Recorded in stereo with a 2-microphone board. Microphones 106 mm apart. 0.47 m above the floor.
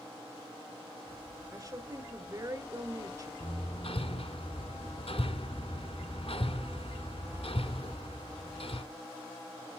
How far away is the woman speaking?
About 1.8 m.